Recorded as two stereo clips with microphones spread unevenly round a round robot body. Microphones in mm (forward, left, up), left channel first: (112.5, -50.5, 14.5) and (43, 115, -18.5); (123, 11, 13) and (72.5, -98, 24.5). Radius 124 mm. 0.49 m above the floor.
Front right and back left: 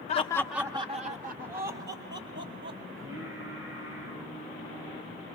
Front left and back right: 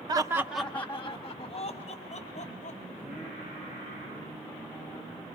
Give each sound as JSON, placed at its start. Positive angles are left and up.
{"t": 0.1, "sound": "laughter", "azimuth_deg": -100, "distance_m": 0.7}
{"t": 2.9, "sound": "singing", "azimuth_deg": 155, "distance_m": 7.0}